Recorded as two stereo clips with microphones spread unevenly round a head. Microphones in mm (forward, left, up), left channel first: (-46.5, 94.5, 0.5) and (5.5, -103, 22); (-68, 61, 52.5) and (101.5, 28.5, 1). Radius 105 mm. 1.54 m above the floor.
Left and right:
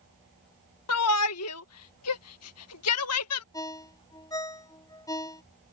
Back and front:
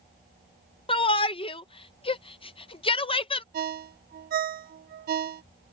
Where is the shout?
115° left.